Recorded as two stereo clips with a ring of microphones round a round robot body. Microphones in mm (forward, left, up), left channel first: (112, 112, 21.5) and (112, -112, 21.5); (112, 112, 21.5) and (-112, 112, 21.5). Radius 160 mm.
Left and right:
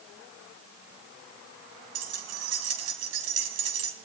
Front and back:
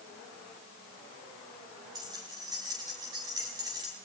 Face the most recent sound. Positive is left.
turn(degrees=-100)